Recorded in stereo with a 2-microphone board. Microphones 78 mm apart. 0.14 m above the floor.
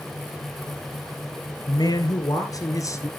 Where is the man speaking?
60° left (ahead or behind), 2.5 m; by 3.1 s 40° left (ahead or behind), 2.0 m.